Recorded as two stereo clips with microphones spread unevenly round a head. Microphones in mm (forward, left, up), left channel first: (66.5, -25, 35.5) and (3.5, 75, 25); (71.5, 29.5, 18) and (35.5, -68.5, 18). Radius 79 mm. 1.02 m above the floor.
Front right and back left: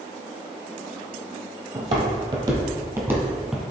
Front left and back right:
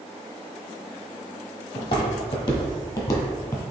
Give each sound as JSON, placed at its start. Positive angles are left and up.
{"t": 1.8, "sound": "footsteps", "azimuth_deg": 105, "distance_m": 1.3}